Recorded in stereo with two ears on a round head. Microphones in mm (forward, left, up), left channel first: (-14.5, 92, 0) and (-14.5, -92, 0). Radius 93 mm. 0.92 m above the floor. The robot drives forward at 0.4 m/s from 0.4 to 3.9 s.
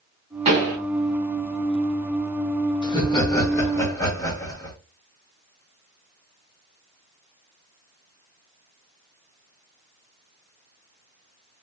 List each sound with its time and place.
0.5 s a pop: 30° right (ahead or behind), 1.3 m
2.8 s laughter: 20° left (ahead or behind), 1.2 m; by 4.8 s 15° left (ahead or behind), 1.6 m